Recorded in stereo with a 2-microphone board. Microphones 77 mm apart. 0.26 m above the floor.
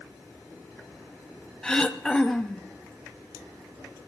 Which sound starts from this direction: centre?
Throat clearing, at 1.6 s.